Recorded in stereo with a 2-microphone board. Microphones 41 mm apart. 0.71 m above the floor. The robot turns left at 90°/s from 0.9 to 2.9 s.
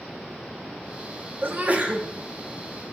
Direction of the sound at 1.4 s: 105° right.